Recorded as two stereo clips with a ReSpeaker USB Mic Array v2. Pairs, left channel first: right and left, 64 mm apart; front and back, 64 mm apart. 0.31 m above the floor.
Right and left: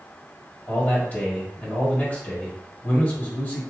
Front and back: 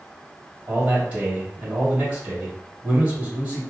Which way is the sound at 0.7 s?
130° right.